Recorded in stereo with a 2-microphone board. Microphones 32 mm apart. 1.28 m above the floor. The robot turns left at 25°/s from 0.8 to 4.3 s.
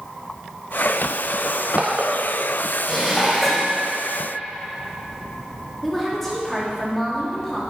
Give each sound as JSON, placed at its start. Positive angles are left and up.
{"t": 1.4, "sound": "crushing", "side_deg": -45, "distance_m": 2.0}
{"t": 2.9, "sound": "dishes clattering", "side_deg": 15, "distance_m": 4.0}
{"t": 5.8, "sound": "a woman speaking", "side_deg": 10, "distance_m": 3.0}